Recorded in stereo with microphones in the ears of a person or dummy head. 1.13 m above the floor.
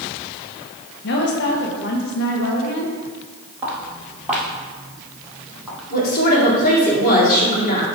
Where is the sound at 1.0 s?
55° left (ahead or behind), 0.9 m.